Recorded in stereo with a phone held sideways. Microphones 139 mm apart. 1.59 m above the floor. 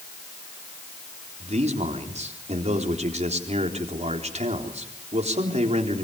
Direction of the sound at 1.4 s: 50° right (ahead or behind).